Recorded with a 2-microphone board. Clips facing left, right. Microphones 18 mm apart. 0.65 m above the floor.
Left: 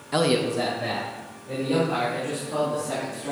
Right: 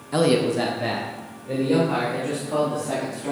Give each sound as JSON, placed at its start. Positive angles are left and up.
{"t": 0.1, "sound": "a man speaking", "side_deg": 15, "distance_m": 0.6}